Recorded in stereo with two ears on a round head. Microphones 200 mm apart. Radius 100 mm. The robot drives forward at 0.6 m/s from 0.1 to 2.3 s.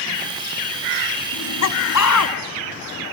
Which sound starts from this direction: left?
Laughter, at 1.3 s.